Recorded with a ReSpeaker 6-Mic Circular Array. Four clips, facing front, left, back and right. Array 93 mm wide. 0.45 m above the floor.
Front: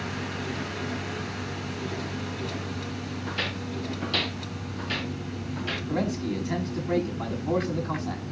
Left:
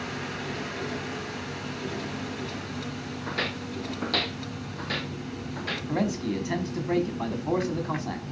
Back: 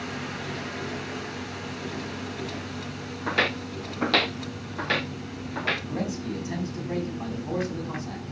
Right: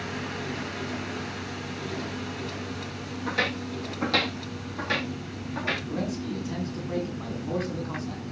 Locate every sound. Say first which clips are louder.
3.3 s footsteps: right 4 dB, back 9 dB; 175° right, 1.8 m; by 5.8 s 165° right, 3.5 m
5.9 s a man speaking: left 3 dB, front 3 dB; 75° left, 4.5 m